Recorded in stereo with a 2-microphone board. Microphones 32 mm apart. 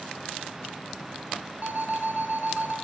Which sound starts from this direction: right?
An alarm, at 1.6 s.